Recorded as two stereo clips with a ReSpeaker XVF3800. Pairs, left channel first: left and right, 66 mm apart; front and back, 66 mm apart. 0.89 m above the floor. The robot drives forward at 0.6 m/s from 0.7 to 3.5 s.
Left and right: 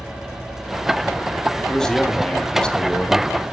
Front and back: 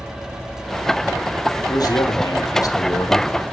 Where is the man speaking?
10° left, 1.8 m; by 3.5 s 25° left, 0.8 m.